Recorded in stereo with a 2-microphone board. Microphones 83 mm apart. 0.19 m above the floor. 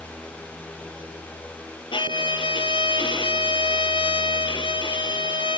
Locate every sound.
1.9 s a violin: 80° left, 0.7 m